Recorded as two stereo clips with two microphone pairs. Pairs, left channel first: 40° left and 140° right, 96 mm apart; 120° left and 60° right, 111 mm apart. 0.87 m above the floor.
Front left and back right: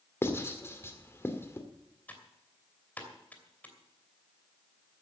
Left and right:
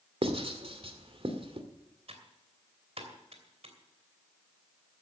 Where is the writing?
25° right, 2.0 m.